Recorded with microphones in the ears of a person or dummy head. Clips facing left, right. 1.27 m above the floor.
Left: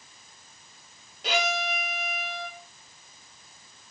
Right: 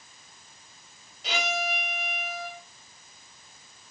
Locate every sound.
1.2 s a violin: 50° left (ahead or behind), 4 m